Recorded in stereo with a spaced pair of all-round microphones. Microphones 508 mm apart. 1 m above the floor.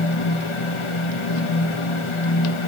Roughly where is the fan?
Left.